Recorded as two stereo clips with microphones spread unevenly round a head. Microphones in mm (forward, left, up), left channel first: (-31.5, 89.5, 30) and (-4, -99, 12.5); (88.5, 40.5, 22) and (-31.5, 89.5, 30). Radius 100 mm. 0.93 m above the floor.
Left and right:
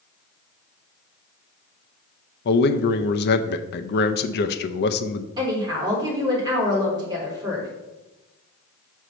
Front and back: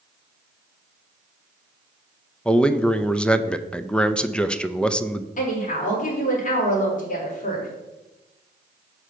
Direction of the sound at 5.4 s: 15° right.